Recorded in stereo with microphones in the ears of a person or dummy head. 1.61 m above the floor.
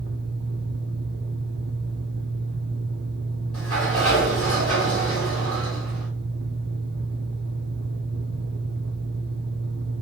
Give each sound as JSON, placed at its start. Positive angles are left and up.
{"t": 0.0, "sound": "a fan", "side_deg": -65, "distance_m": 0.8}
{"t": 3.5, "sound": "a sliding door", "side_deg": 5, "distance_m": 1.6}